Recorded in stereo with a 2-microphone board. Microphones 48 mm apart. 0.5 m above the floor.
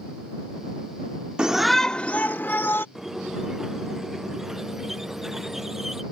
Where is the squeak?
10° right (ahead or behind).